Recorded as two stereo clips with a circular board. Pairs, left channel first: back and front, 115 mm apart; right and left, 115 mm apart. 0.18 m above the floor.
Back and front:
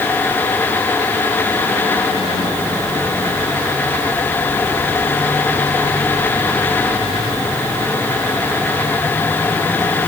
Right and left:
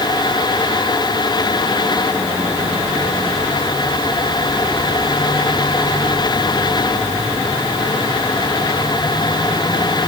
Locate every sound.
Only background noise.